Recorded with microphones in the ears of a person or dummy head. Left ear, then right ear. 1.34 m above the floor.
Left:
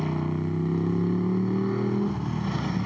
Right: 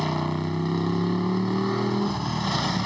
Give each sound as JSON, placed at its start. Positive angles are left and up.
{"t": 0.0, "sound": "a motorcycle", "side_deg": -50}